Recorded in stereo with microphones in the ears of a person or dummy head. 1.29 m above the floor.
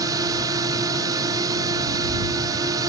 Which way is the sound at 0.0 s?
20° right (ahead or behind).